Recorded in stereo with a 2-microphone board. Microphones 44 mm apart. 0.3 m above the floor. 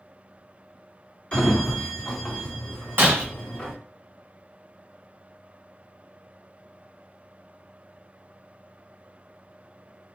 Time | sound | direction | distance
1.3 | a sliding door | 20° left (ahead or behind) | 1.2 m
3.0 | breaking glass | 55° right (ahead or behind) | 1.8 m